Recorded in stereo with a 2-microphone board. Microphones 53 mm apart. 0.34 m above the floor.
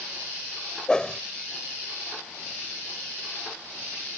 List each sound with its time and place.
0.9 s a whoosh: 20° left (ahead or behind)